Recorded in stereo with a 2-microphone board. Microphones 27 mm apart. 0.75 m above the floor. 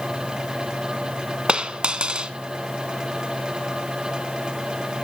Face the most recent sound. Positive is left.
turn(degrees=-35)  # may be behind; listen again after turning